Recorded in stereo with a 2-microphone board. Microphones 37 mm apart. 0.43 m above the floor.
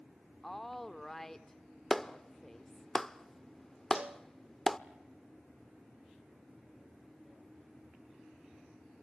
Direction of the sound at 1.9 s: 10° left (ahead or behind).